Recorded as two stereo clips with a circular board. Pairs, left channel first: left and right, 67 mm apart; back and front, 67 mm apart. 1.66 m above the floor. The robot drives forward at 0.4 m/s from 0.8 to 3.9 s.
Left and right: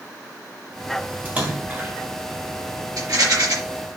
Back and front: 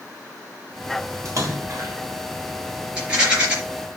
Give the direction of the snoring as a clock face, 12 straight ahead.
I don't hear snoring.